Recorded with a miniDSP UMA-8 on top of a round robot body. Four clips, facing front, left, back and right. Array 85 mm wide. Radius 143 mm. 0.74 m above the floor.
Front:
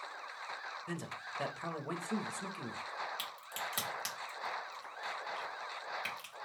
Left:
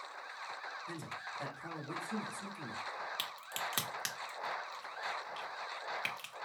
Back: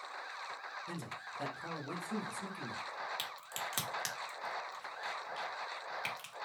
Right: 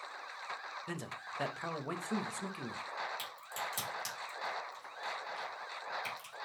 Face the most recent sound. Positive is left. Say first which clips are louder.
# even, even
turn(degrees=105)